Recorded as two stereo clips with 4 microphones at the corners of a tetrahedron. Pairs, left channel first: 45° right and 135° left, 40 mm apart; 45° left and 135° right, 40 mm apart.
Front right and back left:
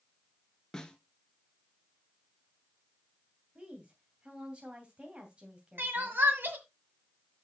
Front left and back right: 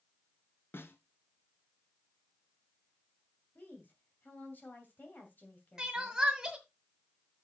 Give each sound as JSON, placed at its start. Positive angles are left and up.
{"t": 0.7, "sound": "a snare drum", "azimuth_deg": 30, "distance_m": 1.1}
{"t": 3.5, "sound": "a woman speaking", "azimuth_deg": 75, "distance_m": 2.5}
{"t": 5.8, "sound": "crying", "azimuth_deg": 155, "distance_m": 1.8}